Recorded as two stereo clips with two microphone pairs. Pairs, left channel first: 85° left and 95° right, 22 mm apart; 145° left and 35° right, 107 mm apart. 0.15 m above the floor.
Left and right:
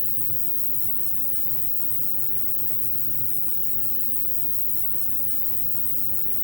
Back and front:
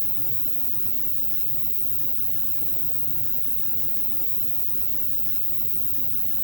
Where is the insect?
15° right.